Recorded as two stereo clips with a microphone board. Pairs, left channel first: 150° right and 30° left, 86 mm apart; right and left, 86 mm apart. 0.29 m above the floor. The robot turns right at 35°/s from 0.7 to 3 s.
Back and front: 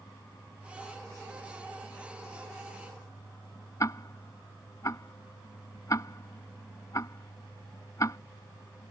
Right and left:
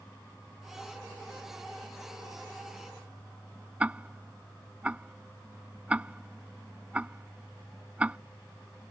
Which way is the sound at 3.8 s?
165° left.